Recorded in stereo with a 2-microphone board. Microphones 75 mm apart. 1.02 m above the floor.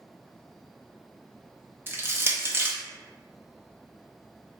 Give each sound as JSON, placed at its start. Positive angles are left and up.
{"t": 1.9, "sound": "crushing", "side_deg": -30, "distance_m": 0.6}